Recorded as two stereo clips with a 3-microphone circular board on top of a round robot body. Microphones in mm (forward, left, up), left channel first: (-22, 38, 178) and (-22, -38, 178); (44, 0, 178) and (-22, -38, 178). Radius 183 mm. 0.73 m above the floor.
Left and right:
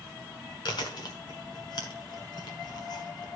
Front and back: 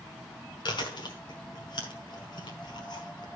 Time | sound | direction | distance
0.7 | chewing | 55° left | 1.3 m